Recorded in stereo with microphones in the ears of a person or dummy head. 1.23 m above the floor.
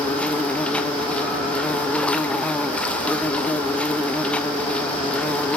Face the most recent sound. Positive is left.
turn(degrees=5)  # may be behind; listen again after turning